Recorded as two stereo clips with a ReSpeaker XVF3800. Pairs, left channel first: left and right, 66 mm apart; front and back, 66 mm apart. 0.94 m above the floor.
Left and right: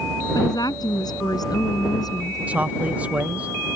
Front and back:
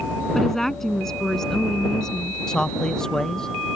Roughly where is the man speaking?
Ahead right.